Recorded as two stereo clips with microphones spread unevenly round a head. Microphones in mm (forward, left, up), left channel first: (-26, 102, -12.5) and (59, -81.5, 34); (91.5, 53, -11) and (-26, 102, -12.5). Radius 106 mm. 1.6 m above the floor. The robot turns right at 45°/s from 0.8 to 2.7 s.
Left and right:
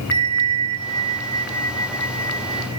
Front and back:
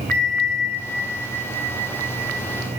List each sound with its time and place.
0.1 s a bell: 100° right, 1.7 m; by 2.8 s 15° right, 1.7 m